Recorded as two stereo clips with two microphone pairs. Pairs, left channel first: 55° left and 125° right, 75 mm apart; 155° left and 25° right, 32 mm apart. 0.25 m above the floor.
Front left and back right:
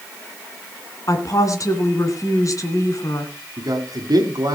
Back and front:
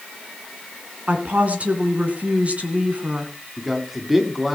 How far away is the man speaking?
About 2 m.